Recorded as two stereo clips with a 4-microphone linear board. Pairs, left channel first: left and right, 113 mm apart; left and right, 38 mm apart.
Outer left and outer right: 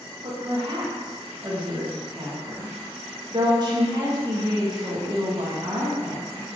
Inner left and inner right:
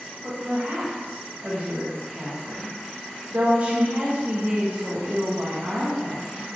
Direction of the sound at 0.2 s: 35° right (ahead or behind).